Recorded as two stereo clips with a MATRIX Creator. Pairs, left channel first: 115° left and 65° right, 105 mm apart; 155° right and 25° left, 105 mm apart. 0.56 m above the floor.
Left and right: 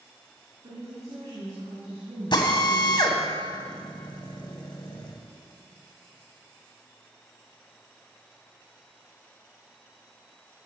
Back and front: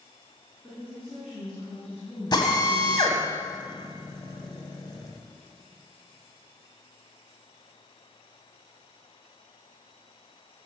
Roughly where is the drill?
Behind left.